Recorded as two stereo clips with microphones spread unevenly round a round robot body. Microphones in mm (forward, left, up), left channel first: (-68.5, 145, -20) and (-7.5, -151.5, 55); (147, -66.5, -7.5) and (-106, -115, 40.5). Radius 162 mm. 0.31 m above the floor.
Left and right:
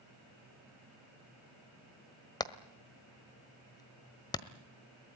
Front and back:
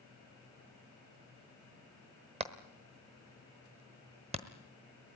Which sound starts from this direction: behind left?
Hammering, at 2.4 s.